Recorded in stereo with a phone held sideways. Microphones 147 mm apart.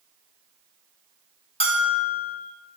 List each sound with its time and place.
1.6 s a bell: 40° left (ahead or behind), 1.5 m